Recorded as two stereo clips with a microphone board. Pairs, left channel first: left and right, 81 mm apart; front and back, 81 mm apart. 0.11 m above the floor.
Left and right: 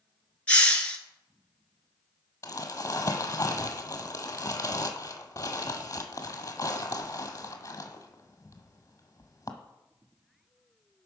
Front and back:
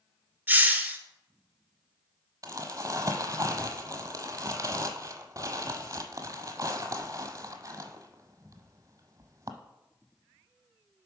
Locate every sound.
0.5 s a hiss: 145° left, 1.1 m
2.4 s crumpling: 140° left, 1.0 m